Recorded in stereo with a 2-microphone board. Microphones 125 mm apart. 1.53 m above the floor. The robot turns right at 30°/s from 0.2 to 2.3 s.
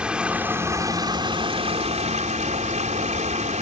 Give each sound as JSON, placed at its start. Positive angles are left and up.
{"t": 0.0, "sound": "running water", "azimuth_deg": -170}